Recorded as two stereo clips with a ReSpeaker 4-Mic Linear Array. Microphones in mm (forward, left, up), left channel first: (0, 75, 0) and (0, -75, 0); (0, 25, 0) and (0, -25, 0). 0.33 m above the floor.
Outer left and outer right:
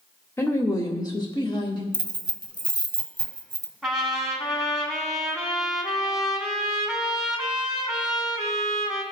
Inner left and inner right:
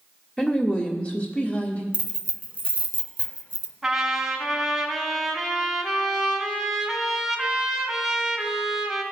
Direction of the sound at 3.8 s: Centre (ahead or behind).